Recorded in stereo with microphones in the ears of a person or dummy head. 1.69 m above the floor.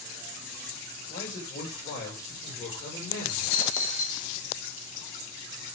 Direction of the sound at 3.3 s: 45° left (ahead or behind).